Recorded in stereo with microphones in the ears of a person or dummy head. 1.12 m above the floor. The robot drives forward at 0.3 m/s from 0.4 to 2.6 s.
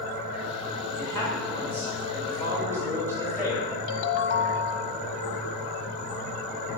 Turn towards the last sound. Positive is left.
turn(degrees=65)  # may be behind; listen again after turning